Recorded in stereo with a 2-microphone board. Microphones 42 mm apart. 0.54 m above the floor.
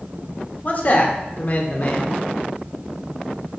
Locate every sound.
0.6 s a man speaking: 40° left (ahead or behind), 1.2 m